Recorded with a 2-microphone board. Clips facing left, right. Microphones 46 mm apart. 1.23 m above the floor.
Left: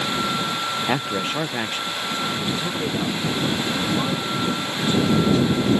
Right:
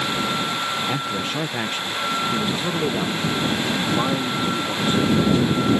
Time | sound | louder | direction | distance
0.9 | a man speaking | left 1 dB | 35° left (ahead or behind) | ?